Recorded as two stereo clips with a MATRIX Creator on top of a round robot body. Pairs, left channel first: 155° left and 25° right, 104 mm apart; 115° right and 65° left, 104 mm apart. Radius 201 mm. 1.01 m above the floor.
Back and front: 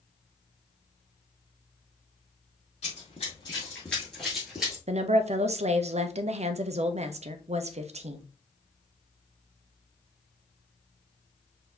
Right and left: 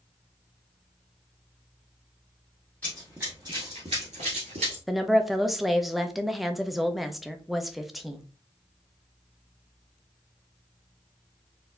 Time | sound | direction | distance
2.8 | running footsteps | 170° left | 1.0 m
4.9 | a woman speaking | 20° right | 0.8 m